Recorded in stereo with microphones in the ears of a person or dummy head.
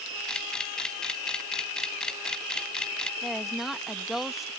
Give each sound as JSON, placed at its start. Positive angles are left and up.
{"t": 0.3, "sound": "a camera shutter", "side_deg": 10}
{"t": 3.2, "sound": "a woman speaking", "side_deg": -5}